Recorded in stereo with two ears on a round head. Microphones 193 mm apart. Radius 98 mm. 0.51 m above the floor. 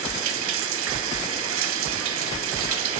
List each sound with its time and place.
0.0 s running water: 65° right (ahead or behind), 0.9 m